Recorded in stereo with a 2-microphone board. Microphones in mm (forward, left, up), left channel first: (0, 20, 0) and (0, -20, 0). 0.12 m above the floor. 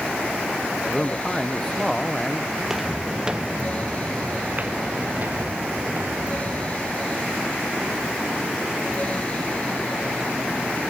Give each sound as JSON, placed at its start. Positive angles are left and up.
{"t": 0.9, "sound": "a man speaking", "side_deg": 10}
{"t": 2.6, "sound": "footsteps", "side_deg": -5}